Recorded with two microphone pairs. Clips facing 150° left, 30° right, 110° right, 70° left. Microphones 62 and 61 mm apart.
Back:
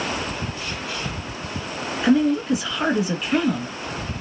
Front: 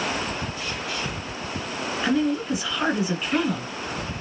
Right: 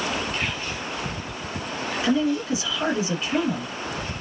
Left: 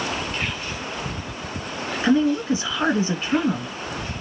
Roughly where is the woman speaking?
Ahead left.